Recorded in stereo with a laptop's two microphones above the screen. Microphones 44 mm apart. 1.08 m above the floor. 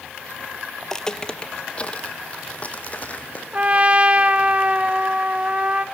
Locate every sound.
0.8 s footsteps: 10° left (ahead or behind), 1.1 m; by 3.4 s 35° left (ahead or behind), 2.5 m
3.5 s a trumpet: 30° right (ahead or behind), 1.2 m